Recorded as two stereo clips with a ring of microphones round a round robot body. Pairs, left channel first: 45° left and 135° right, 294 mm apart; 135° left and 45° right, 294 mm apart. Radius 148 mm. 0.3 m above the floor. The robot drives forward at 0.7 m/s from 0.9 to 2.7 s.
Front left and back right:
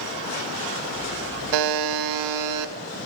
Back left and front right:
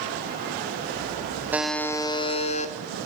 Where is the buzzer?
130° right, 0.6 m; by 2.7 s 160° right, 1.3 m.